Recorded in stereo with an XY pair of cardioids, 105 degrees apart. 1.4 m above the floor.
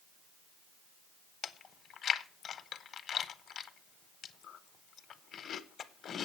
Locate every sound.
1.4 s chewing: 55° left, 1.0 m